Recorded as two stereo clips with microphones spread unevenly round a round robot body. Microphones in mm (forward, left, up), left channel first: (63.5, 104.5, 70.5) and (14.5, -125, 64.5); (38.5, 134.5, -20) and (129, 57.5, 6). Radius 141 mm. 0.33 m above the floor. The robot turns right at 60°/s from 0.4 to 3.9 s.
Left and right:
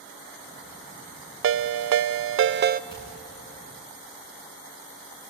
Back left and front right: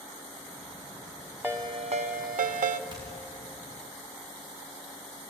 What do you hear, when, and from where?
1.4 s a ringtone: 130° right, 0.6 m; by 2.8 s 50° right, 0.6 m
2.9 s hammering: 10° left, 10 m; by 3.0 s 15° left, 10 m